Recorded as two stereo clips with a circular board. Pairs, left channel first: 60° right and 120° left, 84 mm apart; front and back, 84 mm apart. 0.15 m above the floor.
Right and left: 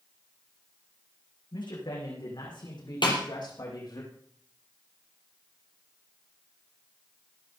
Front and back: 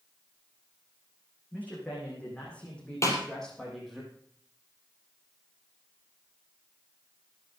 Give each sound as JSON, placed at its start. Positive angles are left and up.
{"t": 1.5, "sound": "a man speaking", "azimuth_deg": -70, "distance_m": 8.0}
{"t": 3.0, "sound": "a snare drum", "azimuth_deg": -50, "distance_m": 4.0}